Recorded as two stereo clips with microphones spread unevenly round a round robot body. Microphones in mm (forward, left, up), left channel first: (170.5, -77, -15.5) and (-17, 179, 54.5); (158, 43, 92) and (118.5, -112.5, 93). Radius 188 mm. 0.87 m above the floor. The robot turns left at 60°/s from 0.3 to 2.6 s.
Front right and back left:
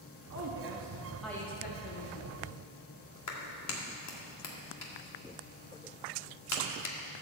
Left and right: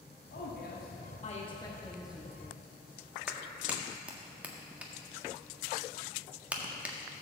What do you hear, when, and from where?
0.3 s a woman speaking: 90° left, 1.5 m; by 2.7 s 50° right, 1.5 m
3.3 s a clap: 20° right, 1.7 m